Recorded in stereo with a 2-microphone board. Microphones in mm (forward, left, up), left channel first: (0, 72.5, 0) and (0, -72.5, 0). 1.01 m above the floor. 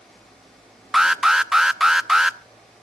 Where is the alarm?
5° right (ahead or behind), 0.7 m.